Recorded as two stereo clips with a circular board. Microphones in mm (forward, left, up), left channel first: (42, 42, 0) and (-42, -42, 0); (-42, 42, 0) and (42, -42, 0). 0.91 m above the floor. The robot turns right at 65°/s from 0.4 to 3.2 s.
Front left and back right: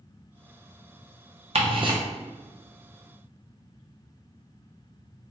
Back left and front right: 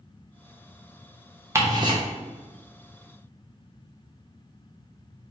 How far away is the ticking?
About 0.6 m.